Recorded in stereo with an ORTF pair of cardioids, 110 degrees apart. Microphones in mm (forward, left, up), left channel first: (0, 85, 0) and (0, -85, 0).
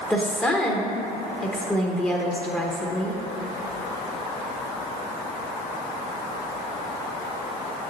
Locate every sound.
0.1 s a woman speaking: 10° left, 0.8 m